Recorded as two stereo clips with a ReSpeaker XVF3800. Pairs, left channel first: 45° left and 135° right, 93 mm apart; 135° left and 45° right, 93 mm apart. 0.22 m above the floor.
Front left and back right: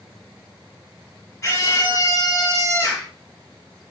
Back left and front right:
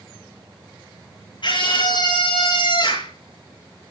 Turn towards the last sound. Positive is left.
turn(degrees=105)